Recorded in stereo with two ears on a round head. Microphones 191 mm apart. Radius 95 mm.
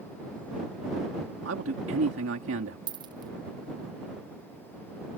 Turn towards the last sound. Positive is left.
turn(degrees=-25)  # may be behind; listen again after turning